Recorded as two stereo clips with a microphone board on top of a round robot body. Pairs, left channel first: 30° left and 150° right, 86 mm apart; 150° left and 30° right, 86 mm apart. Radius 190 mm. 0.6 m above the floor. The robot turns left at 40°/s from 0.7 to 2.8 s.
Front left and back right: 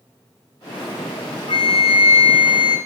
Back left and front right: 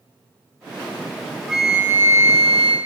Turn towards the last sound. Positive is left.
turn(degrees=5)